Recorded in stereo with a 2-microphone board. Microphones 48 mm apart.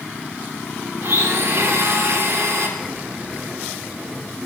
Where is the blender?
65° right (ahead or behind), 1.8 m.